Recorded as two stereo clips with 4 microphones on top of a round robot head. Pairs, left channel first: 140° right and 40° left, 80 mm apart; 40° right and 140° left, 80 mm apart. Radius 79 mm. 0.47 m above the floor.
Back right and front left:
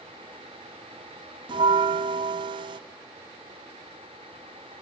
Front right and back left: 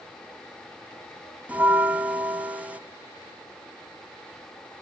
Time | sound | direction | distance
1.5 | a bell | 70° left | 0.7 m